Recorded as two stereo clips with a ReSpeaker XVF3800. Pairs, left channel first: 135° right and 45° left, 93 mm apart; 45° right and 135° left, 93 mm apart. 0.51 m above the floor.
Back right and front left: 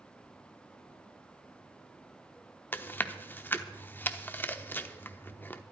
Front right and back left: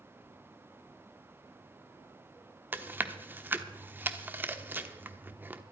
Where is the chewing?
Straight behind, 0.8 m.